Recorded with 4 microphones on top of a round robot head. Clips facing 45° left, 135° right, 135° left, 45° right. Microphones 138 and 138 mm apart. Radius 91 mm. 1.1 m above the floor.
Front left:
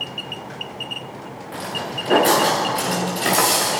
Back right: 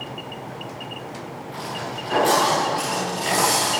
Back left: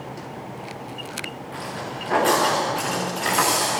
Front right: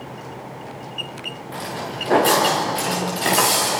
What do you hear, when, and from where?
1.5 s footsteps: 5° left, 6.5 m; by 3.8 s 15° left, 8 m